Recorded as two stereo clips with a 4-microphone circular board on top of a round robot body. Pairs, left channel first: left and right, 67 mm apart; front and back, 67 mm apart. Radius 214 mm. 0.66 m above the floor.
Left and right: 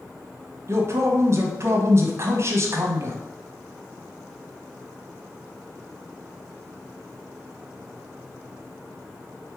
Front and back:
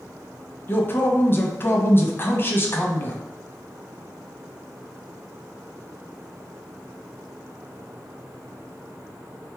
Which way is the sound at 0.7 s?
50° right.